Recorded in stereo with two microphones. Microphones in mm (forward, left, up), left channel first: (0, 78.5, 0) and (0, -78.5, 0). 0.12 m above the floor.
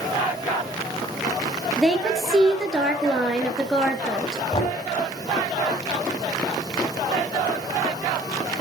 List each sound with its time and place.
1.8 s a woman speaking: centre (ahead or behind), 2.5 m
4.5 s knocking: 40° left (ahead or behind), 5 m